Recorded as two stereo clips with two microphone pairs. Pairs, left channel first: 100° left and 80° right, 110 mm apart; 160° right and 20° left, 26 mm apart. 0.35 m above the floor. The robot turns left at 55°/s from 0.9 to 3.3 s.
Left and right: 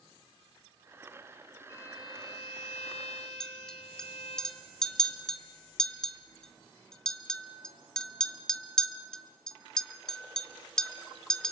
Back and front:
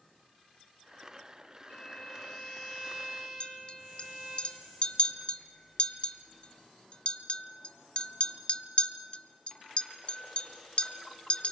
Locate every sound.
1.7 s a violin: 165° left, 4 m; by 4.4 s 75° left, 4 m
3.4 s a clink: straight behind, 1.0 m